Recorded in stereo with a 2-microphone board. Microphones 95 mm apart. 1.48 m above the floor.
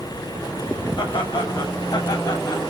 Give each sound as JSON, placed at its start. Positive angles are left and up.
{"t": 1.0, "sound": "laughter", "side_deg": 50, "distance_m": 8.0}